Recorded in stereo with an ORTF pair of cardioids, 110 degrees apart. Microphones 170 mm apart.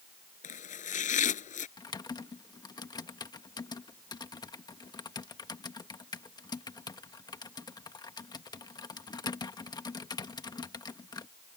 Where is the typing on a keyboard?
25° left.